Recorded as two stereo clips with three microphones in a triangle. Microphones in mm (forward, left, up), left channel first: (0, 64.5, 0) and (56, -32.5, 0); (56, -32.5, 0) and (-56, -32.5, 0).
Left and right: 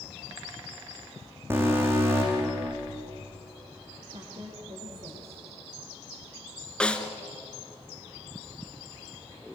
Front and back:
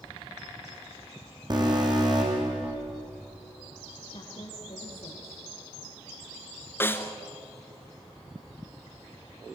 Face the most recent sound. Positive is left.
turn(degrees=50)